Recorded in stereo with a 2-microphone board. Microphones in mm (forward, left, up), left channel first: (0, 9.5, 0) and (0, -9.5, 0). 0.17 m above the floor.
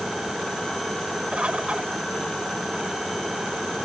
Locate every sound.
1.3 s a bird: 80° right